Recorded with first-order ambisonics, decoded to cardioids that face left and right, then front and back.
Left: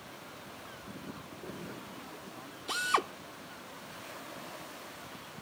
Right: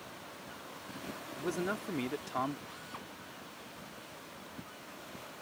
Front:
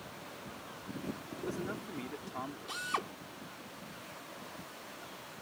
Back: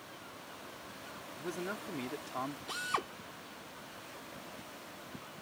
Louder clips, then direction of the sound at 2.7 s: Left 16 dB, even; 95° left.